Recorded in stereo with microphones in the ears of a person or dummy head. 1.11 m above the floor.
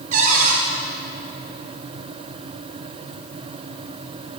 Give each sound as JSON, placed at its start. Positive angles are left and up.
{"t": 0.1, "sound": "a cupboard door", "side_deg": -40, "distance_m": 2.5}